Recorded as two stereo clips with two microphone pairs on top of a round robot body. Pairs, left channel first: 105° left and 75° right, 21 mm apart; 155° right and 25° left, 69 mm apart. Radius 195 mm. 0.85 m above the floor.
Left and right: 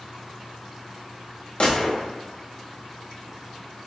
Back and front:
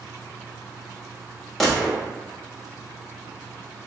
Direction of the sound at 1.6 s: 120° left.